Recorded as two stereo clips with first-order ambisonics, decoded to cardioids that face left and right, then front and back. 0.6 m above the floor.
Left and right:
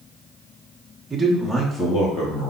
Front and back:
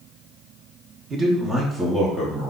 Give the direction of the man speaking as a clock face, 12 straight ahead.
5 o'clock.